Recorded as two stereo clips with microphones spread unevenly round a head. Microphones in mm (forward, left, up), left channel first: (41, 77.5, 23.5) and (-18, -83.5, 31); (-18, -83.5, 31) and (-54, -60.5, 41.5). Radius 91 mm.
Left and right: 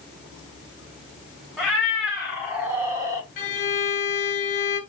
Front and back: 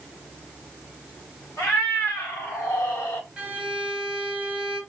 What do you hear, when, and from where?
1.6 s a cat meowing: 25° right, 2.5 m; by 3.3 s 55° right, 1.1 m
3.4 s a violin: 90° left, 0.9 m